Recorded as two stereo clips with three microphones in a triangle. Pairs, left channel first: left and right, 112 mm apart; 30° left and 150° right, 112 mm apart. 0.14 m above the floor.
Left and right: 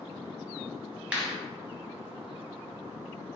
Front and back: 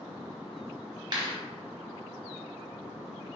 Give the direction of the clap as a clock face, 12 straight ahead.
5 o'clock.